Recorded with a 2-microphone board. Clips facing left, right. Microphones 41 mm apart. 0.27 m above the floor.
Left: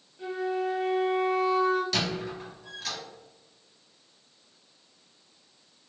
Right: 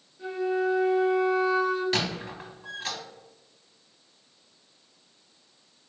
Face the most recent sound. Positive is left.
turn(degrees=-30)  # may be behind; listen again after turning